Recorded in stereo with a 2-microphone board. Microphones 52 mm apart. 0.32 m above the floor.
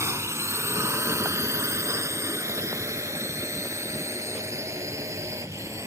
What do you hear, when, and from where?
0.0 s a drone: 60° right (ahead or behind); by 5.9 s 70° right (ahead or behind)